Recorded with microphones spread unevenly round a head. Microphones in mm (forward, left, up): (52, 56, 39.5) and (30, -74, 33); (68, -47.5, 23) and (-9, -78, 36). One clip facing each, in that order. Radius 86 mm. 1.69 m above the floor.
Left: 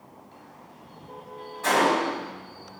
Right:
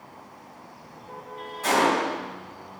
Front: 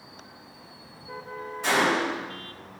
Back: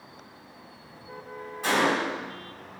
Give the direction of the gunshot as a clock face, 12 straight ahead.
6 o'clock.